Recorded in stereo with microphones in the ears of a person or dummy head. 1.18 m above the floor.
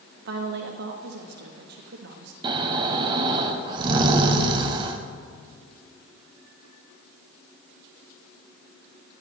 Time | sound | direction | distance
0.2 | a woman speaking | 60° right (ahead or behind) | 1.3 m
2.4 | snoring | 30° right (ahead or behind) | 1.0 m